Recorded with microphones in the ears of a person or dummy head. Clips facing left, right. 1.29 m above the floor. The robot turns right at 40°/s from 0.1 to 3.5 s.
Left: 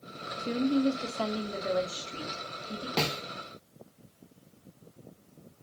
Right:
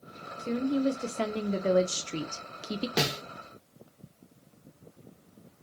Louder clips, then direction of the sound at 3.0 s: Left 1 dB; 10° right (ahead or behind).